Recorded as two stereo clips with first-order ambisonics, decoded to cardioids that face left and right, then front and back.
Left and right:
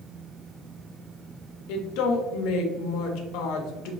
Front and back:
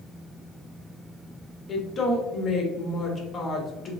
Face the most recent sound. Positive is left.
turn(degrees=70)